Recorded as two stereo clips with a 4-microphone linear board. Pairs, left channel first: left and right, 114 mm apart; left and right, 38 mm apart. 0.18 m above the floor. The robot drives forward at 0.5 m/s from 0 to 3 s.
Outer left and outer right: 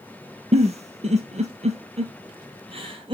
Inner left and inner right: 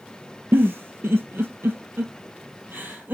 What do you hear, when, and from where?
0.5 s a giggle: 70° right (ahead or behind), 1.2 m; by 3.1 s 50° right (ahead or behind), 1.5 m